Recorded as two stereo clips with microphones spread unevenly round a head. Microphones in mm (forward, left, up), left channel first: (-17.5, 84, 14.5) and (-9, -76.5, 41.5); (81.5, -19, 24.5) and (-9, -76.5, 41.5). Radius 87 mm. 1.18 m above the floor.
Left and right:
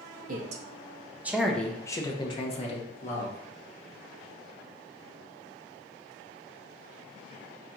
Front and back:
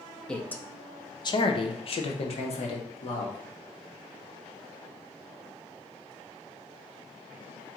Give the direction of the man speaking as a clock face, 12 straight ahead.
1 o'clock.